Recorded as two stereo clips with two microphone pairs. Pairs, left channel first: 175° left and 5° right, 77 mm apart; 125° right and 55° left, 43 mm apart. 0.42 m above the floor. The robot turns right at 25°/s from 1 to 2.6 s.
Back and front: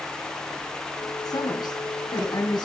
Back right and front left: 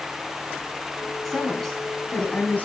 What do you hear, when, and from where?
1.2 s a woman speaking: 145° left, 4 m; by 2.7 s straight behind, 4 m